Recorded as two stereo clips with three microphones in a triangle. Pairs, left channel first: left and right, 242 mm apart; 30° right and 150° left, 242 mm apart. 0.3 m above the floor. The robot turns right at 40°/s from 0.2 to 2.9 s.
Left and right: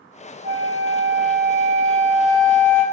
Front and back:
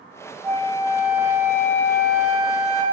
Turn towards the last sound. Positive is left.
turn(degrees=-10)